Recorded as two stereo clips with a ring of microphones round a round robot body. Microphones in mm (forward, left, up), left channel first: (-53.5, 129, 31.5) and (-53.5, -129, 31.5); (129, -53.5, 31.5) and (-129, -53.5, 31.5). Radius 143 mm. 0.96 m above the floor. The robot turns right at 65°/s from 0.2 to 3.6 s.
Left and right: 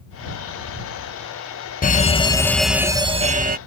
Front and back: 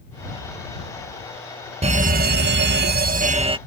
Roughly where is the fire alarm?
Behind left.